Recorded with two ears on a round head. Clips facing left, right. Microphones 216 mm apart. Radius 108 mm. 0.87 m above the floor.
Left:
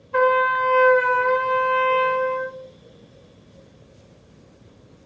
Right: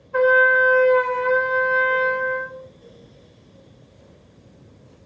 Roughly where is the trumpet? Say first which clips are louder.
Right 3 dB; left.